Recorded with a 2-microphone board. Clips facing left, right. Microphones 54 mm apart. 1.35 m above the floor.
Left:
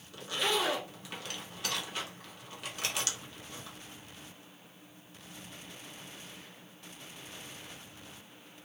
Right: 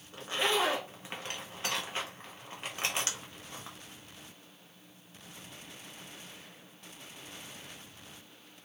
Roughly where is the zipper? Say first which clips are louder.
Right 2 dB; right.